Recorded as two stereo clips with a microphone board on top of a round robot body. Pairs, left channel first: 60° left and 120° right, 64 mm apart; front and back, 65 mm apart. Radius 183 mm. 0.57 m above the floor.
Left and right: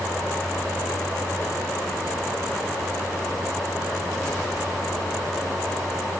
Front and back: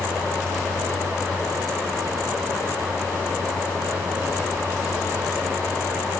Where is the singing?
No singing in this recording.